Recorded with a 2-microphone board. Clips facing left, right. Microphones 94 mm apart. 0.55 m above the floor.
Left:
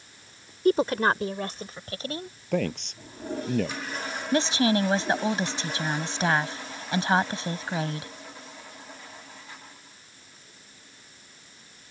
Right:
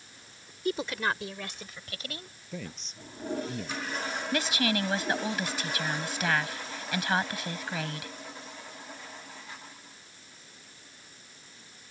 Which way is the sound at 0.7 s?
50° left (ahead or behind).